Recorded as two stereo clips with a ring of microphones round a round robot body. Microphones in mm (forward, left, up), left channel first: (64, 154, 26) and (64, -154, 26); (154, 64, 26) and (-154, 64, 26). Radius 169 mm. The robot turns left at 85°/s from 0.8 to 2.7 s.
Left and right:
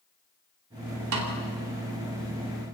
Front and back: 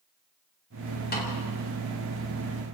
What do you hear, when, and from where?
1.1 s a snare drum: 60° right, 4 m; by 1.4 s 85° right, 4 m